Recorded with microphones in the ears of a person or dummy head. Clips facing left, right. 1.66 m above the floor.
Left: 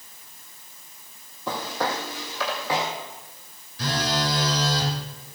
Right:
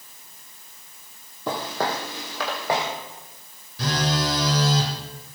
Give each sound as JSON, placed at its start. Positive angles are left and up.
{"t": 1.5, "sound": "footsteps", "side_deg": -45, "distance_m": 4.0}
{"t": 3.8, "sound": "a phone buzzing", "side_deg": -75, "distance_m": 4.0}